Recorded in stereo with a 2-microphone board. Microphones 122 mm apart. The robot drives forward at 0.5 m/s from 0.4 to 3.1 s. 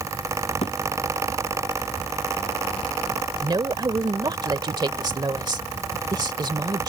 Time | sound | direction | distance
0.6 | a thud | 60° left (ahead or behind) | ?
3.4 | a woman speaking | 35° right (ahead or behind) | ?